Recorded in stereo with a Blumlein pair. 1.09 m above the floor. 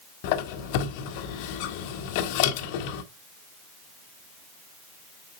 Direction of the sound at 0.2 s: 45° left.